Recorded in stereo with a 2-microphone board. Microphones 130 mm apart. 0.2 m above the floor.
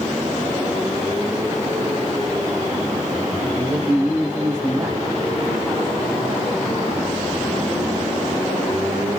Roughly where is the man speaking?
Centre.